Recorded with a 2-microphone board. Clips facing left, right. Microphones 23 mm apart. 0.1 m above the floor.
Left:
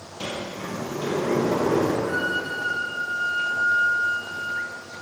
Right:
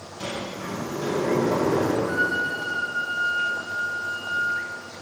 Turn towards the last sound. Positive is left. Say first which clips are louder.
# right 2 dB
turn(degrees=35)  # may be behind; listen again after turning